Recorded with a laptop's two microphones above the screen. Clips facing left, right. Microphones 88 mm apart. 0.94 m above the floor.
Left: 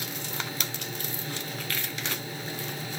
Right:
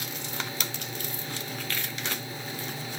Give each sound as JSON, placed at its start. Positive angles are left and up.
{"t": 0.0, "sound": "a machine running", "side_deg": 35, "distance_m": 6.5}